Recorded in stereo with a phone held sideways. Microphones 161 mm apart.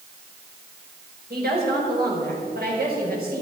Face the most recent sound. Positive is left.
turn(degrees=-70)  # may be behind; listen again after turning